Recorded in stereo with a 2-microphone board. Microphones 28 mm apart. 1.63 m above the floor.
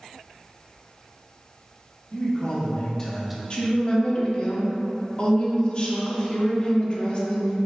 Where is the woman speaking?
30° left (ahead or behind), 0.8 m.